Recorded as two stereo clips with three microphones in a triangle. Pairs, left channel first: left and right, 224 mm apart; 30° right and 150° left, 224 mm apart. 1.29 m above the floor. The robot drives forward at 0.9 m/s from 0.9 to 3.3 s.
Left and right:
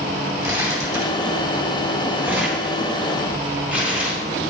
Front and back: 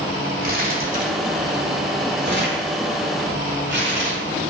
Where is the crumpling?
165° right, 1.9 m; by 4.2 s 175° right, 4 m.